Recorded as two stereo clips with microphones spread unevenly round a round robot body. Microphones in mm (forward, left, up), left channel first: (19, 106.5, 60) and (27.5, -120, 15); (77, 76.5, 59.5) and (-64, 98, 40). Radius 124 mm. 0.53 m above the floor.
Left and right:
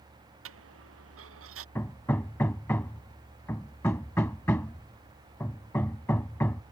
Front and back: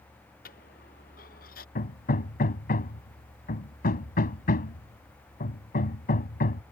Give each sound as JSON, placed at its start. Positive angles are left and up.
{"t": 0.5, "sound": "a dropped coin", "azimuth_deg": -55}
{"t": 1.8, "sound": "hammering", "azimuth_deg": 10}